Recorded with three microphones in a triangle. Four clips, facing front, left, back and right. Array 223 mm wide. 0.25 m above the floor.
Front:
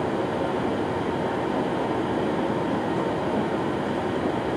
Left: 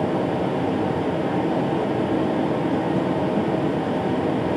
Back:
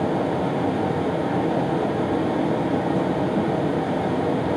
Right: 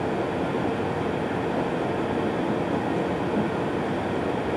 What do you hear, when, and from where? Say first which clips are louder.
0.0 s running water: left 4 dB, back 3 dB; 130° left, 3.5 m